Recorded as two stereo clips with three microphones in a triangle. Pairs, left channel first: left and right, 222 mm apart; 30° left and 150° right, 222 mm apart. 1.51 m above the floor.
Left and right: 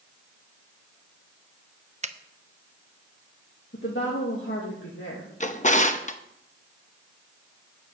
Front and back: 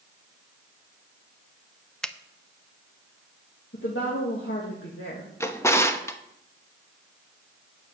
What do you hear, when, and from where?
2.0 s a finger snap: 55° right, 0.6 m
3.7 s a woman speaking: 55° left, 1.9 m
5.4 s a drawer: 95° left, 0.9 m